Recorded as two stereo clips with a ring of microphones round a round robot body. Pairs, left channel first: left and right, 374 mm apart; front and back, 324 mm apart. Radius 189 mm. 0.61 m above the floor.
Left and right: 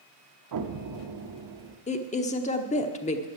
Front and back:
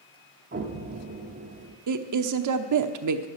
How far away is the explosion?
About 0.9 m.